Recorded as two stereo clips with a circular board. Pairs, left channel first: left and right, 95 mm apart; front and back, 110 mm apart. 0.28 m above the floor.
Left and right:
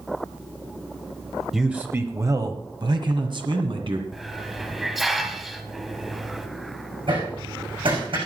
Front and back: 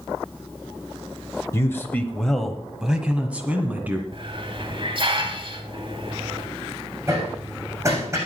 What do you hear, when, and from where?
1.5 s a man speaking: 10° right, 0.9 m; by 4.0 s 110° right, 2 m
4.1 s a hiss: 175° right, 1.3 m
7.1 s hammering: 120° right, 6.5 m